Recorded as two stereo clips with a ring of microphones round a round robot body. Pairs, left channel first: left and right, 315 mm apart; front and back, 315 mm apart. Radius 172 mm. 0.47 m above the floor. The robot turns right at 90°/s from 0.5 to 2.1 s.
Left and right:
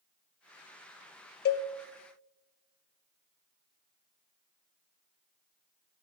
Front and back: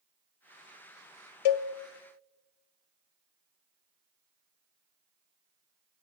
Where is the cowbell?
25° left, 0.5 m; by 1.7 s 45° left, 0.5 m.